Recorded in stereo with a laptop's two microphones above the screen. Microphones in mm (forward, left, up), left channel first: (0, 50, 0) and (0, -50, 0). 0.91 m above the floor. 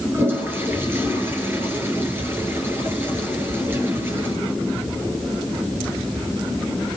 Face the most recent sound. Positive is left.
turn(degrees=-25)  # may be behind; listen again after turning